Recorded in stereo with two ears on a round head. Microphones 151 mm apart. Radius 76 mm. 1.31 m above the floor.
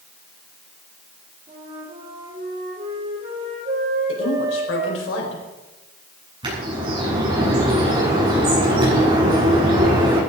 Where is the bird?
30° right (ahead or behind), 9 m.